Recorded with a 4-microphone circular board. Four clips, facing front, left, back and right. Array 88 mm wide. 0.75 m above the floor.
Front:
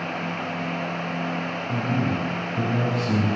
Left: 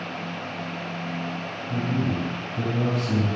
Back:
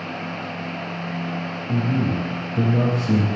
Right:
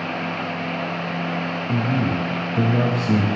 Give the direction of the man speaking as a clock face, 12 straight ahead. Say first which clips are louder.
Right 3 dB, back 3 dB; 4 o'clock.